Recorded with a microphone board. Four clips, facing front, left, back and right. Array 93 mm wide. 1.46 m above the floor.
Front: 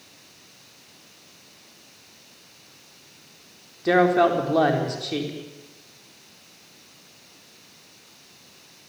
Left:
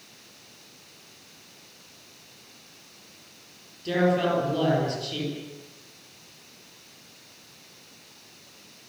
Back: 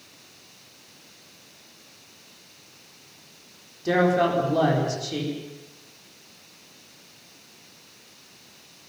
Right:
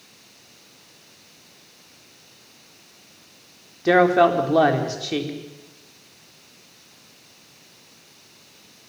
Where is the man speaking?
70° right, 4.5 m.